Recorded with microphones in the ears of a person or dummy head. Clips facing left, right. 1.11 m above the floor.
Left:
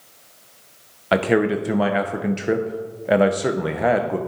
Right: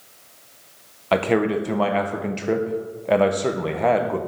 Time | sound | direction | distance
1.1 | a man speaking | 5° left (ahead or behind) | 0.6 m